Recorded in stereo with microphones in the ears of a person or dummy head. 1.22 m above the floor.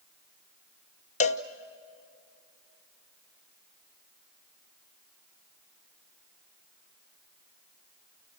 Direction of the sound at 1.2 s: 35° left (ahead or behind).